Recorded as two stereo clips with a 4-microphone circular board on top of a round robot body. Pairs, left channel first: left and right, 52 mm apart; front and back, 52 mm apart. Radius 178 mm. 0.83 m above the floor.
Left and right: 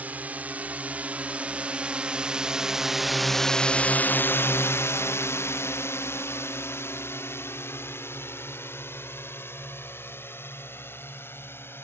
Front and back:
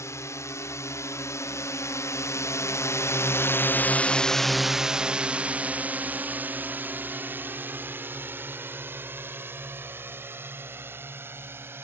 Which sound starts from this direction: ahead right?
A drone, at 0.0 s.